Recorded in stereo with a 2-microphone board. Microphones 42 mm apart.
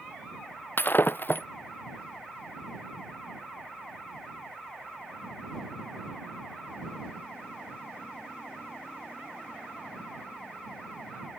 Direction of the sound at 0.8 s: 50° left (ahead or behind).